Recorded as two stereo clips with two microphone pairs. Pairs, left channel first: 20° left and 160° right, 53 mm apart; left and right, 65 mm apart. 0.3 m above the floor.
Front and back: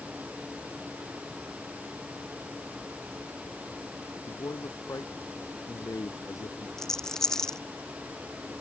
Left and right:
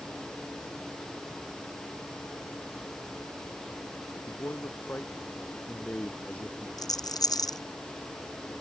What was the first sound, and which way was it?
A man speaking, 35° left.